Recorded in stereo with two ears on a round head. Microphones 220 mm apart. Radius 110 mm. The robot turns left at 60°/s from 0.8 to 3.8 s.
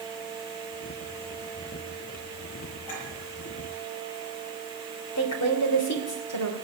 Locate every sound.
2.9 s a clink: 65° left (ahead or behind), 8 m; by 3.1 s 75° left (ahead or behind), 8 m
5.2 s a woman speaking: 65° left (ahead or behind), 3 m